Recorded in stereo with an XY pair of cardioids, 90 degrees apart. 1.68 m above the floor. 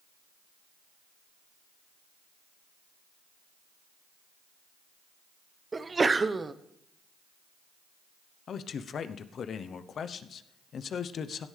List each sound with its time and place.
5.7 s a sneeze: 30° right, 1.0 m
8.5 s a man speaking: 60° left, 0.8 m